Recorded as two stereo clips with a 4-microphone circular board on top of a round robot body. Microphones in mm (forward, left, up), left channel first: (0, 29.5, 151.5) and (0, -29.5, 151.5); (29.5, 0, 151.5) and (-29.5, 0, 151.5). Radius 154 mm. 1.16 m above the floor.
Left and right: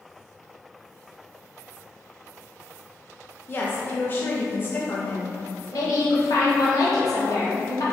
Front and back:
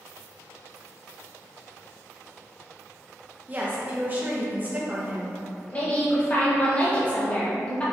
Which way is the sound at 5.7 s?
70° left.